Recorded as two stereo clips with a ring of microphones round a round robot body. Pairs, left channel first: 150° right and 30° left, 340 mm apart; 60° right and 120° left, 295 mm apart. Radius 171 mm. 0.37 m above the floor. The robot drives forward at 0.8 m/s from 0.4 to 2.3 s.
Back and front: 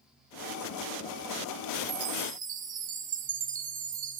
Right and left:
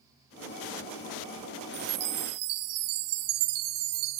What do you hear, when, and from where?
1.7 s a chime: 55° left, 0.7 m; by 4.2 s 100° left, 0.6 m